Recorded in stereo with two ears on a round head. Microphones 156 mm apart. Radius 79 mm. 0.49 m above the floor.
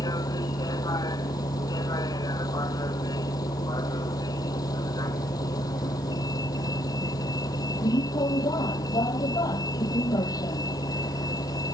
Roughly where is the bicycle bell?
No bicycle bell in this recording.